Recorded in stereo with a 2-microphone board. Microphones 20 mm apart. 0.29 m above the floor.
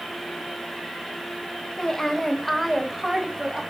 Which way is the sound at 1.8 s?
30° left (ahead or behind).